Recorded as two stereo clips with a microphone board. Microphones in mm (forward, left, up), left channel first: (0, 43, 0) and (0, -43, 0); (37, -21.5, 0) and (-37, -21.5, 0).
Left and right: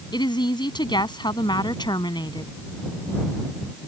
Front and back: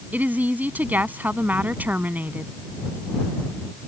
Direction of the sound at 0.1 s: 115° left.